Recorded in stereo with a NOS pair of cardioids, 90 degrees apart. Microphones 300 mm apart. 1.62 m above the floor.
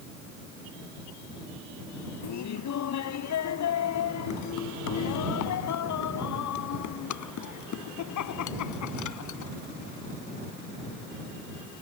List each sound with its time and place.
2.2 s laughter: 65° left; by 9.5 s 75° left